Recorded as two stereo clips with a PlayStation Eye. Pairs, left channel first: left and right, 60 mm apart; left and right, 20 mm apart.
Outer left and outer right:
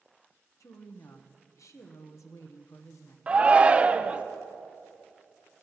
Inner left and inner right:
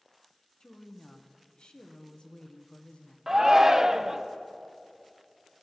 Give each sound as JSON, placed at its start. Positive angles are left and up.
{"t": 0.6, "sound": "a woman speaking", "side_deg": 60, "distance_m": 1.3}
{"t": 3.3, "sound": "a shout", "side_deg": -20, "distance_m": 0.8}